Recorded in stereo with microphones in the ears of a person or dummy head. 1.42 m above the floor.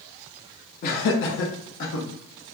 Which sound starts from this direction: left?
Laughter, at 0.8 s.